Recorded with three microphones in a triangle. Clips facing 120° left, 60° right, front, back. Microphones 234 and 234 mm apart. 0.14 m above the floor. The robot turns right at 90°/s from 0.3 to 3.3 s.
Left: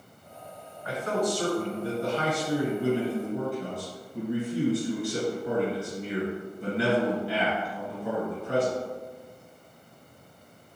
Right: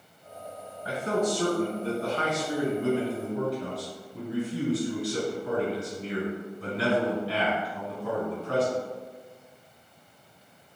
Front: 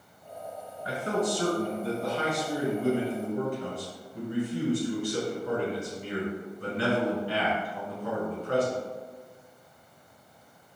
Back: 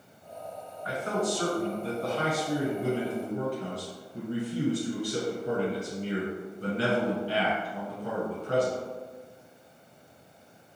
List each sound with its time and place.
0.8 s a man speaking: 25° right, 1.3 m; by 8.8 s 165° right, 1.3 m